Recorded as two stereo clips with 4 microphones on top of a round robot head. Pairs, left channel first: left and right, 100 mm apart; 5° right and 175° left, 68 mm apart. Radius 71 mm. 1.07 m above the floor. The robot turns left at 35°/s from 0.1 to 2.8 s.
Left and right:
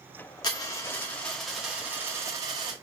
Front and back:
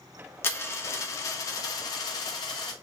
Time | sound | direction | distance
0.4 | a dropped coin | 40° left | 0.7 m